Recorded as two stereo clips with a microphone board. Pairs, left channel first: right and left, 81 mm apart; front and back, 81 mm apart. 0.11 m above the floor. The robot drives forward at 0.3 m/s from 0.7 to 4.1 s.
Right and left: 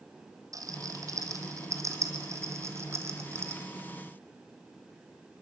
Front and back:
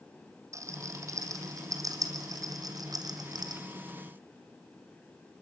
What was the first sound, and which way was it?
A rattle, 135° left.